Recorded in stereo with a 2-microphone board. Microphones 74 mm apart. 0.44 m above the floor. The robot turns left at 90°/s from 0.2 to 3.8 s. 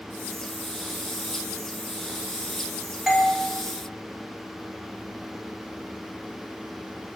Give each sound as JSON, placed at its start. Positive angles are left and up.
{"t": 3.1, "sound": "a doorbell", "side_deg": -5, "distance_m": 1.6}